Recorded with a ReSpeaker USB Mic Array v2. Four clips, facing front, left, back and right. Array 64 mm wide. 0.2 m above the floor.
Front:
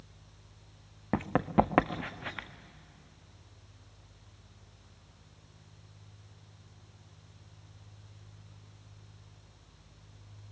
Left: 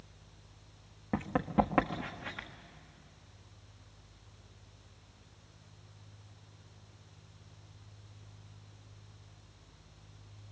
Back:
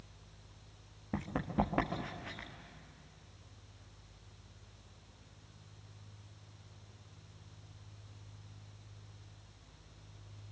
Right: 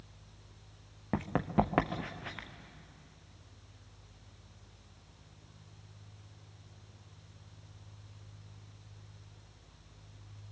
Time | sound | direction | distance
1.1 | running footsteps | 10° right | 1.1 m